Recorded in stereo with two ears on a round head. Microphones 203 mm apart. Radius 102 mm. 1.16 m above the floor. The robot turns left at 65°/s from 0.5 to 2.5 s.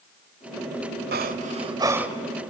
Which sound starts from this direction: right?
Breathing, at 1.1 s.